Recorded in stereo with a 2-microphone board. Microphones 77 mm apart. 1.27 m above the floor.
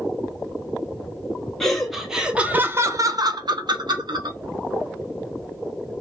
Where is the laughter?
5° left (ahead or behind), 0.9 m; by 4.4 s 65° right (ahead or behind), 0.9 m.